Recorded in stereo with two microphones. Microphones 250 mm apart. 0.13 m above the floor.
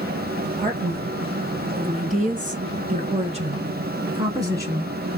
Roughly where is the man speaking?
Right.